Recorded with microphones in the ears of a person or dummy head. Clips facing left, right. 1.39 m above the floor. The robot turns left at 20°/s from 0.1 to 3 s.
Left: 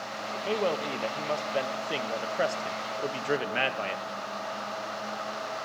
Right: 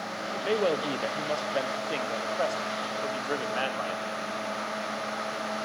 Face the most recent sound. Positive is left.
turn(degrees=145)